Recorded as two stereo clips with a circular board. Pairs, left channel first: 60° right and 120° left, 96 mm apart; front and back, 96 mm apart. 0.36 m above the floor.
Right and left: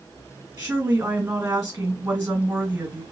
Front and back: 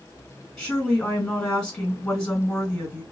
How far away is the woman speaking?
About 1.9 m.